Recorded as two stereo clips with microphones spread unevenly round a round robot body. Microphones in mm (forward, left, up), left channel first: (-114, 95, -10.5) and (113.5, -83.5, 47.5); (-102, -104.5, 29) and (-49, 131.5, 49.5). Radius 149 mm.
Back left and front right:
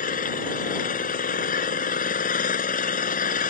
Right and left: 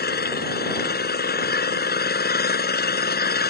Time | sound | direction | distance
0.0 | an engine running | 155° right | ?